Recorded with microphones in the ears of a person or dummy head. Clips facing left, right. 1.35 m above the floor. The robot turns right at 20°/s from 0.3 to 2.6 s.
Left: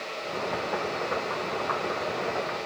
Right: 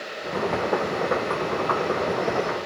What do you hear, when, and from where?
Only background noise.